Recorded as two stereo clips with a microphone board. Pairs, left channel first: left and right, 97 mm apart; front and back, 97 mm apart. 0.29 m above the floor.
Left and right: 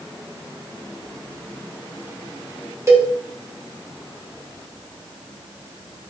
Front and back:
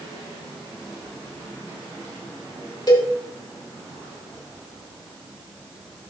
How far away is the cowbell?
About 2 m.